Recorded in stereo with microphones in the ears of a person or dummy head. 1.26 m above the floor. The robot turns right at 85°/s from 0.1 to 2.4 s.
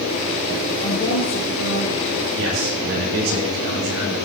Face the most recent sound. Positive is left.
turn(degrees=-80)